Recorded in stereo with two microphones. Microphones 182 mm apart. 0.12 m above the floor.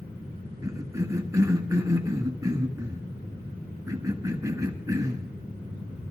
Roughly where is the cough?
Centre.